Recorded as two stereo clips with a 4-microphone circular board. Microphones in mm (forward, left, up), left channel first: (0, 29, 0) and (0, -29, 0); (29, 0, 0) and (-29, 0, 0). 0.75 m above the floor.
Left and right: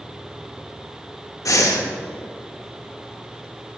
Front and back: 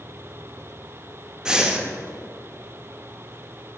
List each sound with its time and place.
1.4 s breathing: 105° left, 0.6 m